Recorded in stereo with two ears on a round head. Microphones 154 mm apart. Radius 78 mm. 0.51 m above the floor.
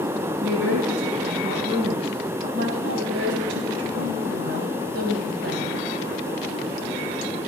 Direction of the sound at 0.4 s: 80° right.